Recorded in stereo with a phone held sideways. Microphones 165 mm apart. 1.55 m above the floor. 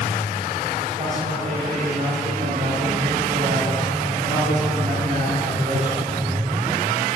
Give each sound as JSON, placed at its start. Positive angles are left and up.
{"t": 1.0, "sound": "a man speaking", "side_deg": -40, "distance_m": 2.0}